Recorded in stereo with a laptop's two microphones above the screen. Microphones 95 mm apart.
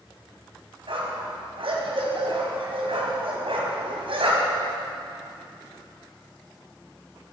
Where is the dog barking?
75° right (ahead or behind), 2.5 m.